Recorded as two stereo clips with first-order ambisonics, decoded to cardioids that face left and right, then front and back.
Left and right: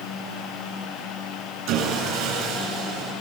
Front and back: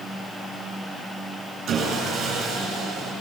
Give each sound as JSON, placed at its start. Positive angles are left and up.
{"t": 1.7, "sound": "sawing", "azimuth_deg": -120, "distance_m": 8.0}